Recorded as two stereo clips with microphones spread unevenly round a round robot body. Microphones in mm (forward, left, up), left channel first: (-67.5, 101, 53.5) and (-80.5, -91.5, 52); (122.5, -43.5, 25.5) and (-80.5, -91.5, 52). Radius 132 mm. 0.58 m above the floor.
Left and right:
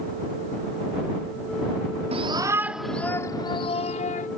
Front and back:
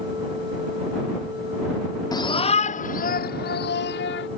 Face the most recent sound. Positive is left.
turn(degrees=35)